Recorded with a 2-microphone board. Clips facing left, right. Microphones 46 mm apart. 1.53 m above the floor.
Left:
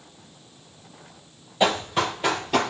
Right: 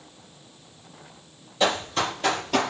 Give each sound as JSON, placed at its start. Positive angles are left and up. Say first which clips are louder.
{"t": 1.6, "sound": "running footsteps", "louder": "left 2 dB", "side_deg": 20, "distance_m": 1.8}